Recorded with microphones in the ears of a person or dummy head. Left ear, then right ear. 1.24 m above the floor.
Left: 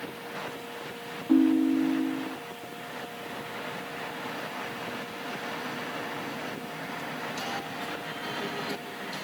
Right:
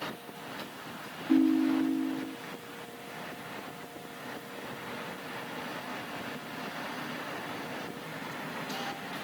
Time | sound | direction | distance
1.3 | a ringtone | 10° left (ahead or behind) | ?